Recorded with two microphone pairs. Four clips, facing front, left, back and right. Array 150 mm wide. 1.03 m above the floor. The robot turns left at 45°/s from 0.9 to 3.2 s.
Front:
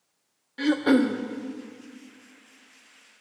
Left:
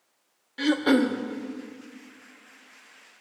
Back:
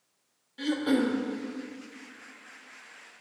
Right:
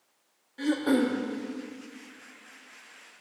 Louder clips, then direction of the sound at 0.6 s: Left 3 dB, front 5 dB; 65° left.